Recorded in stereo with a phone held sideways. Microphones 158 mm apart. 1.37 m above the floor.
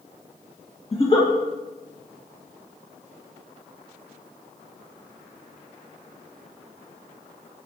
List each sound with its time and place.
0.9 s a giggle: 35° left (ahead or behind), 1.8 m